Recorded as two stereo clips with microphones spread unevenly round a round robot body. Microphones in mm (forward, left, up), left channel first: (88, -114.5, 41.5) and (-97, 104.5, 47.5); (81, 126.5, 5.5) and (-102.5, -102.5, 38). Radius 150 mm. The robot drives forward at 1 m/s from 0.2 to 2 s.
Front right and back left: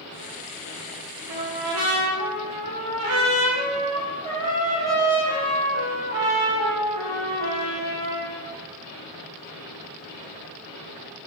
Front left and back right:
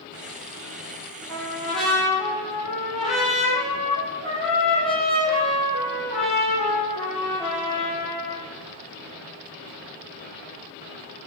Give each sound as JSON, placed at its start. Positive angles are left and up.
{"t": 1.3, "sound": "a trumpet", "azimuth_deg": 135, "distance_m": 4.0}